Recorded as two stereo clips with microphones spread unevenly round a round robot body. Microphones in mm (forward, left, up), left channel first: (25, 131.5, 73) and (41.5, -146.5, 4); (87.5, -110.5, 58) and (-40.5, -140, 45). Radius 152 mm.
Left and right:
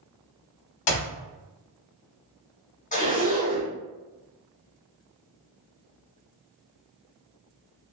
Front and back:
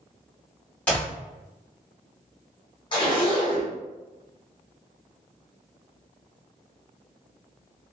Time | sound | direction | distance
0.9 | a clap | 95° left | 0.8 m
2.9 | a zipper | 25° left | 1.0 m